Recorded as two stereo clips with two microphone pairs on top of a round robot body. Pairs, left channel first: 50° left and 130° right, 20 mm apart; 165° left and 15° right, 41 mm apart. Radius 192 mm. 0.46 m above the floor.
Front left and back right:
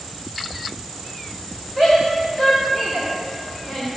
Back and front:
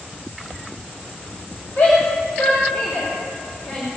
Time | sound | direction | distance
1.8 | a shout | 115° left | 2.5 m